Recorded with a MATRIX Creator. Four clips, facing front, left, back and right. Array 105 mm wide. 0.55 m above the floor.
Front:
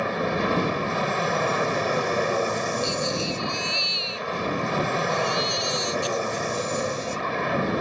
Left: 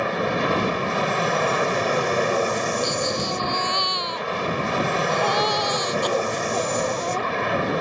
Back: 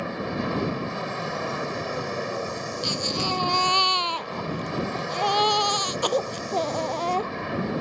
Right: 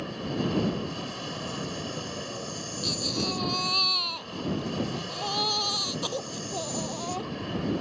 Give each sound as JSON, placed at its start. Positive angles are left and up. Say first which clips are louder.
{"t": 0.0, "sound": "an aircraft", "louder": "left 8 dB, front 4 dB", "azimuth_deg": 65}
{"t": 2.8, "sound": "a baby crying", "louder": "left 7 dB, front 2 dB", "azimuth_deg": 160}